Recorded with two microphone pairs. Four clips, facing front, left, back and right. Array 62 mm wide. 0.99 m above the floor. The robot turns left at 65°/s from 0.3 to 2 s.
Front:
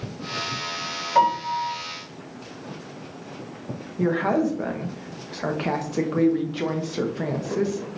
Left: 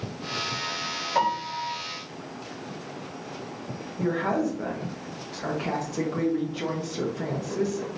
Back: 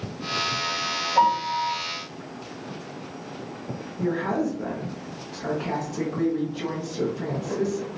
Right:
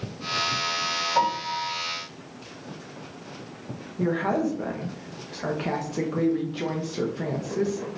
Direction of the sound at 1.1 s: 30° left.